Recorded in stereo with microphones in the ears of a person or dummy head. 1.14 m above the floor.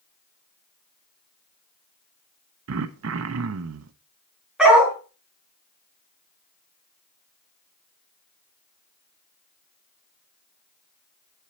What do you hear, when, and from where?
2.7 s throat clearing: 85° right, 0.6 m
4.6 s a dog barking: 5° right (ahead or behind), 4 m